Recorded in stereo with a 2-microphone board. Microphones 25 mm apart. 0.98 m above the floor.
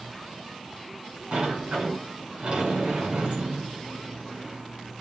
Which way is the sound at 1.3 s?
55° right (ahead or behind).